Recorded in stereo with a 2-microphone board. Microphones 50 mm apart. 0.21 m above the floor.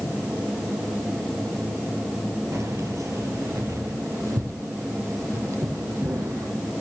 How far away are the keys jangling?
About 3 m.